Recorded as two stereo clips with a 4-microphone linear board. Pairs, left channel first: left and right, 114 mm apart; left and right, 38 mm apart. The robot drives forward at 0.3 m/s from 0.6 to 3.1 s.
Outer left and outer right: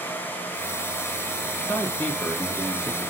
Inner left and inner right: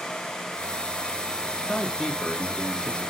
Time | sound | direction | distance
1.6 | a man speaking | 15° left (ahead or behind) | 0.9 m